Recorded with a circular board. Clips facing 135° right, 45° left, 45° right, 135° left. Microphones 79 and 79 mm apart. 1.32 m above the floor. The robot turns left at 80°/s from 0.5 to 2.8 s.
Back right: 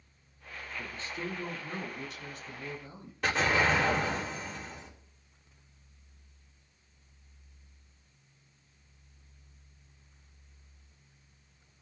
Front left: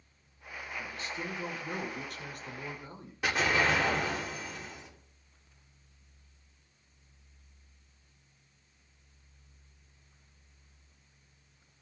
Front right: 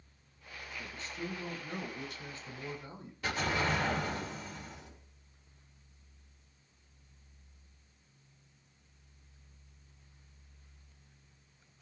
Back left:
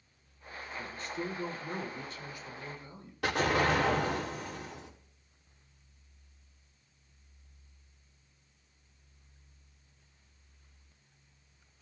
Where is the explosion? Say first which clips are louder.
Back right 1 dB, back left 5 dB; 130° left, 3 m.